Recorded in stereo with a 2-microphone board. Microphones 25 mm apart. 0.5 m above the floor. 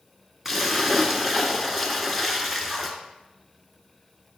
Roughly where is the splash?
Centre.